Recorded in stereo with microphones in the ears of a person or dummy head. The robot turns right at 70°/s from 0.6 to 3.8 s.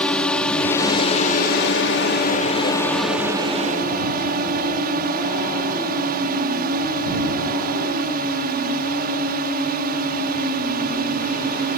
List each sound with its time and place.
0.0 s a drone: 10° left; by 11.8 s 125° right